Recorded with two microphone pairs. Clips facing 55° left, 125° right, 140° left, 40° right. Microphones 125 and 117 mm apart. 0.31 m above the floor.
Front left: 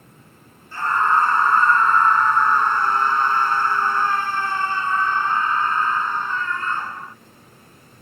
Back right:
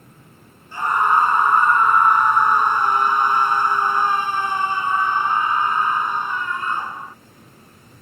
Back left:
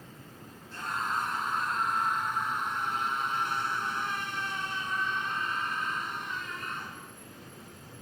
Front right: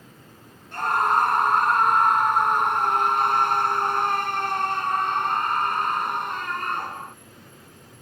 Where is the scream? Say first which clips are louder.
Back right 1 dB, front right 12 dB; 55° right.